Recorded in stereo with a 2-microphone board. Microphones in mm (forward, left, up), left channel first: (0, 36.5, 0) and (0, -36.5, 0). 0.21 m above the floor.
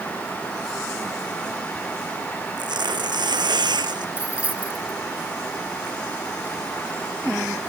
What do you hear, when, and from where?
2.6 s tearing paper: 85° right
4.2 s keys jangling: 20° right (ahead or behind)